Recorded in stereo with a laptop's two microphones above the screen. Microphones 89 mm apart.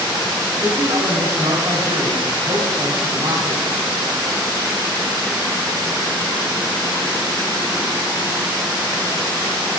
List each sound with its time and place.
0.6 s a man speaking: 85° right, 4.5 m